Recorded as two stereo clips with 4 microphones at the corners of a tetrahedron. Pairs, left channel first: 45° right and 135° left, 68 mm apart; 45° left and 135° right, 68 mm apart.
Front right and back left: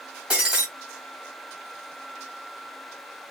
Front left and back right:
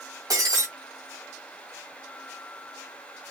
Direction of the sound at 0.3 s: 155° right.